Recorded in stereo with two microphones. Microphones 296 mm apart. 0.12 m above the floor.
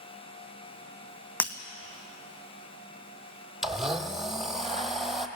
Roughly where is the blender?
Centre.